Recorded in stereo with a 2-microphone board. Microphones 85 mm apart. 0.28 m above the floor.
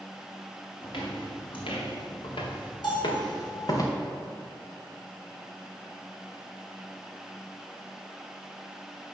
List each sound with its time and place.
0.8 s footsteps: 85° left, 3 m; by 3.8 s 45° left (ahead or behind), 2.5 m
2.8 s a bell: 60° left (ahead or behind), 3 m